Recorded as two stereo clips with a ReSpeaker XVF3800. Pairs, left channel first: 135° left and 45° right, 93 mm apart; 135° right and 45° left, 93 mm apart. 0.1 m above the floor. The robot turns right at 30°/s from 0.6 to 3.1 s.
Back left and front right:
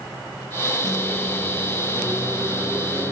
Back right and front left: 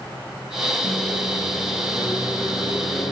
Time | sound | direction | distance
0.8 | a microwave | 160° right | 2.5 m